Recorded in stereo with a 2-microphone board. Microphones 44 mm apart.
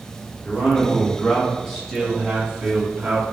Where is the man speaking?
40° left (ahead or behind), 1.4 m; by 3.2 s 30° right (ahead or behind), 2 m.